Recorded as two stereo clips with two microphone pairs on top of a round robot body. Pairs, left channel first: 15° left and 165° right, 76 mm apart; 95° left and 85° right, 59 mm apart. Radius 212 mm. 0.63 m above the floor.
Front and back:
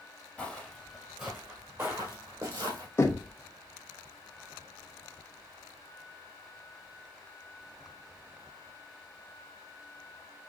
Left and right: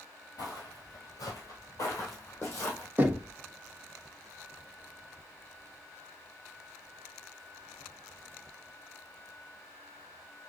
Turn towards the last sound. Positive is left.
turn(degrees=-30)